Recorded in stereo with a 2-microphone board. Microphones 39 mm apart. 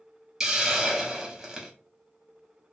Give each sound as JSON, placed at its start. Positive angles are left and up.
{"t": 0.4, "sound": "a hiss", "side_deg": -10, "distance_m": 1.0}